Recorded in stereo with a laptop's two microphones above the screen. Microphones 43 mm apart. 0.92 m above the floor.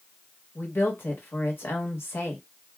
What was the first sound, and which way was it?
A woman speaking, 70° left (ahead or behind).